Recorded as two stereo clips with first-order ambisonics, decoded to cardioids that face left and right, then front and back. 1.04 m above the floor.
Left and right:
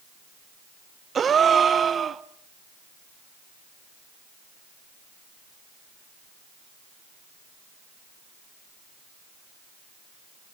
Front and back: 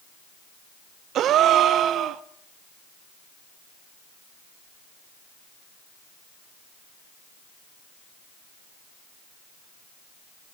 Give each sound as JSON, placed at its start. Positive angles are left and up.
{"t": 1.1, "sound": "a gasp", "azimuth_deg": -150, "distance_m": 0.7}